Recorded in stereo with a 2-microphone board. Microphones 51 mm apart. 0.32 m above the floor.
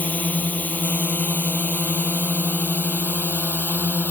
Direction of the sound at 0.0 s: 30° left (ahead or behind).